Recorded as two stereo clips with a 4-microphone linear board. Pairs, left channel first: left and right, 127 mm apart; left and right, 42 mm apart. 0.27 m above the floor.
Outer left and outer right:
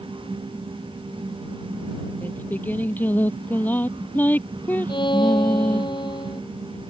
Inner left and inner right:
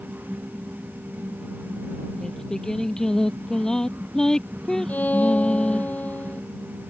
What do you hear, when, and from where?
2.2 s singing: 15° left (ahead or behind)
4.9 s a violin: 40° left (ahead or behind)